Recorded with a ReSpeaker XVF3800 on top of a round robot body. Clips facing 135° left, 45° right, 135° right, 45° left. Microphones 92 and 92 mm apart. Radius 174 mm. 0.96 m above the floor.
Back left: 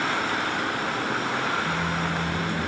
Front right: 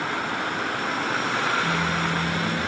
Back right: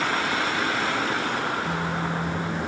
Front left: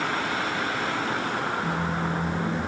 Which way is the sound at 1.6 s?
Straight ahead.